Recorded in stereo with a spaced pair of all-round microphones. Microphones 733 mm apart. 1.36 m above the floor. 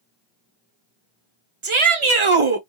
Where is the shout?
45° right (ahead or behind), 0.9 m.